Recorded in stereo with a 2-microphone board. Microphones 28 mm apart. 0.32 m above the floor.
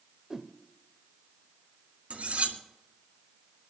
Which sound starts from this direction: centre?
A whoosh, at 0.3 s.